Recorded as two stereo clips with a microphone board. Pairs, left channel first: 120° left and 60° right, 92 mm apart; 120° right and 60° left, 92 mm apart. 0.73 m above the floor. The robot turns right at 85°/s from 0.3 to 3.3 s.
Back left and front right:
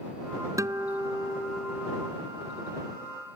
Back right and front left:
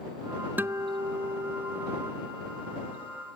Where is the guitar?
10° right; by 2.1 s 125° left.